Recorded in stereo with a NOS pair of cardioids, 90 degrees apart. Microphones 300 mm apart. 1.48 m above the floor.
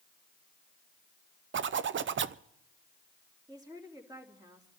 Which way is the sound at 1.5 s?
40° right.